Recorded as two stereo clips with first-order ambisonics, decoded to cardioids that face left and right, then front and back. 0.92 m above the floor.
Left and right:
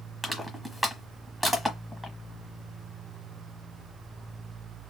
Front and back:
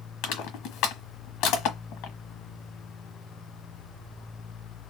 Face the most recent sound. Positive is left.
turn(degrees=-10)